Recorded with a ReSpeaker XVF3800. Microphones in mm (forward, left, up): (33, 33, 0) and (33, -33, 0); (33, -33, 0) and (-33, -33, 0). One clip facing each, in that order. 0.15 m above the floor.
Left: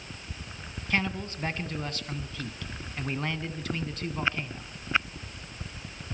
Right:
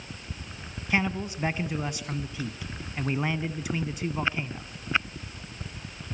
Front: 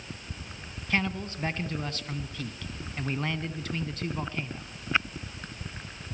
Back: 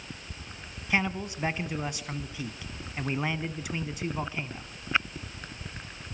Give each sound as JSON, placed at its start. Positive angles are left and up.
{"t": 0.9, "sound": "a man speaking", "azimuth_deg": -140, "distance_m": 1.1}